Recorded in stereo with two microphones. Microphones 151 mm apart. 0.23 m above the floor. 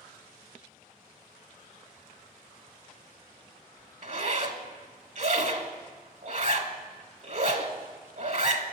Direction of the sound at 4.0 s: 55° right (ahead or behind).